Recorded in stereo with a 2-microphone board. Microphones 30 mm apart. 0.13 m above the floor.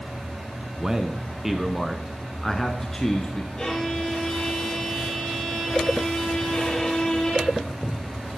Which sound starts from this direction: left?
A violin, at 3.6 s.